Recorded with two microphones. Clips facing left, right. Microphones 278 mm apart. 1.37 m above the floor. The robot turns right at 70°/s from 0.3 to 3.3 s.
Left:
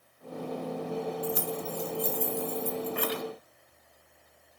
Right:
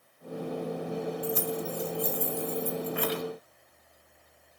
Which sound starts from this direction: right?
Keys jangling, at 1.2 s.